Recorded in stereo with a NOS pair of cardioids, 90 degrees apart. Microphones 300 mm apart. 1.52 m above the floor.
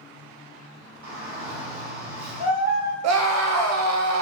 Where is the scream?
60° right, 0.6 m.